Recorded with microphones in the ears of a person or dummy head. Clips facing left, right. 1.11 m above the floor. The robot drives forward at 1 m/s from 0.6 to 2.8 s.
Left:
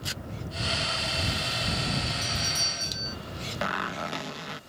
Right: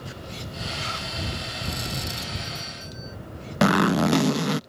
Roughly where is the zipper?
Right.